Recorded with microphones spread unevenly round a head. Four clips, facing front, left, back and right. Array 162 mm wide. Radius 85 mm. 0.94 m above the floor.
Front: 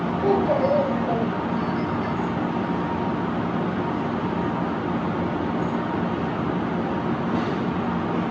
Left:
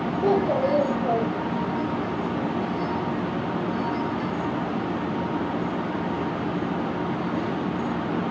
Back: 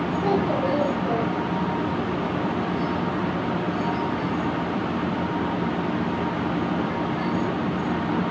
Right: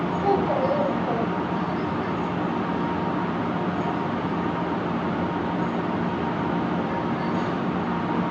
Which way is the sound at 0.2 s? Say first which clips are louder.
Left 1 dB, front 4 dB; 75° left.